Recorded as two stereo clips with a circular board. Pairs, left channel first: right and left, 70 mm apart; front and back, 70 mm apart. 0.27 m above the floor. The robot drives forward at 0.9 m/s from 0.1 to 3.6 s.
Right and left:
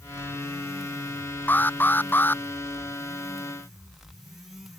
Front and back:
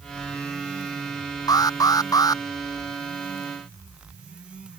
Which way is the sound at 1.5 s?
25° right.